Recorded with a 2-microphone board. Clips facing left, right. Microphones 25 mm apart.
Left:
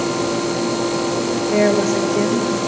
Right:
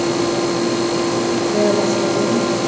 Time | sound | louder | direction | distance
1.5 | a woman speaking | left 2 dB | 45° left (ahead or behind) | 5 m